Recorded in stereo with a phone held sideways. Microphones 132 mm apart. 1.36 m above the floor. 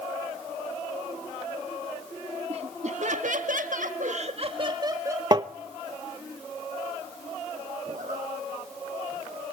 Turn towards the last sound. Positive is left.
turn(degrees=-70)  # may be behind; listen again after turning